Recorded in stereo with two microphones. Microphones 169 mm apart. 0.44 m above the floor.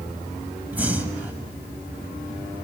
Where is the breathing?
10° right (ahead or behind), 1.6 m.